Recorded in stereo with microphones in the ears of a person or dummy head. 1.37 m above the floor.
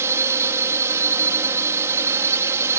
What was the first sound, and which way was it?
A drone, 15° right (ahead or behind).